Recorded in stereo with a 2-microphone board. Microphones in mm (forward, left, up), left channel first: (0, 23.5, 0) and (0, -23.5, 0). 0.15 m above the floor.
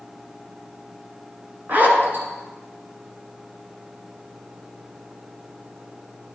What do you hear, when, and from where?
1.7 s a zipper: 40° right (ahead or behind), 2 m